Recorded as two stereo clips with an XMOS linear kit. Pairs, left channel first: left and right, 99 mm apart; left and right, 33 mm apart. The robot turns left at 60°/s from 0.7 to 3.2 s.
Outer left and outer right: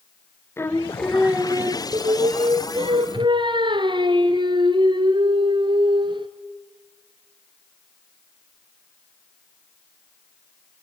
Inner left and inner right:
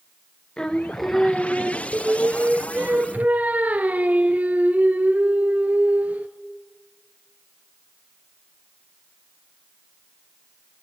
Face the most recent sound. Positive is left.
turn(degrees=-125)